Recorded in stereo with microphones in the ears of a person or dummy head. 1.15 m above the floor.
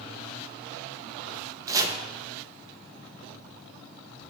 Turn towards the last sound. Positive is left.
turn(degrees=-20)  # may be behind; listen again after turning